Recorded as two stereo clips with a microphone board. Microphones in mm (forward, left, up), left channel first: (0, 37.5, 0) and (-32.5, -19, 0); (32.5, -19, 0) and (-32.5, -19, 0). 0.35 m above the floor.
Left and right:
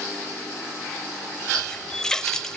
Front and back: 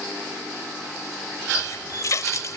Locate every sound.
1.5 s a running tap: 20° right, 1.0 m